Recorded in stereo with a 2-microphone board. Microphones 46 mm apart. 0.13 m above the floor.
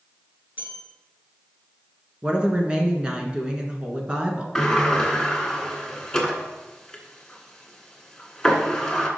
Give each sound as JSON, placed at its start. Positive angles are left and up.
{"t": 0.6, "sound": "a bell", "side_deg": -50, "distance_m": 1.7}
{"t": 2.2, "sound": "a woman speaking", "side_deg": -20, "distance_m": 1.3}
{"t": 4.5, "sound": "a sliding door", "side_deg": 10, "distance_m": 1.4}